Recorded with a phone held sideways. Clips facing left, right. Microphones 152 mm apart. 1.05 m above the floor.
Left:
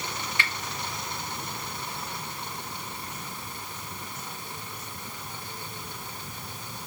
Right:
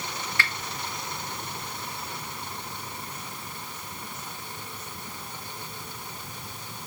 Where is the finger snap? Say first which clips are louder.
Right 2 dB; 20° left (ahead or behind), 0.6 m.